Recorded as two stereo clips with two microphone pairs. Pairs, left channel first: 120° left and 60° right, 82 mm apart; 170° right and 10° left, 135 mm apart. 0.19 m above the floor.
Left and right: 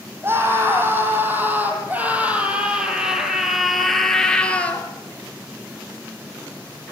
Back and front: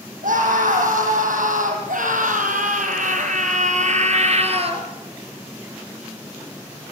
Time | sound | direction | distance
0.2 | a scream | straight ahead | 8 m